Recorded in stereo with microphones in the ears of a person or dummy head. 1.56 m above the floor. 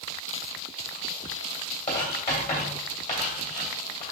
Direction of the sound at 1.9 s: 40° left (ahead or behind).